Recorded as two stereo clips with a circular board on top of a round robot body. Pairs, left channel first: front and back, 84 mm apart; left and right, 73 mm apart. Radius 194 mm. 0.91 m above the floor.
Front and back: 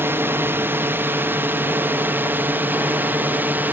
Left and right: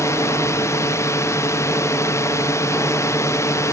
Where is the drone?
125° left; by 3.7 s 120° left.